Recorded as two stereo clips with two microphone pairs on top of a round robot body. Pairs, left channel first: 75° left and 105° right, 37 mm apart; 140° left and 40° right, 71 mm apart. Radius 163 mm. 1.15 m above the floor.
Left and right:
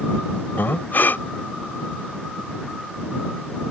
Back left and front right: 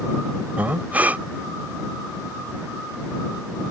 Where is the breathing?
30° left.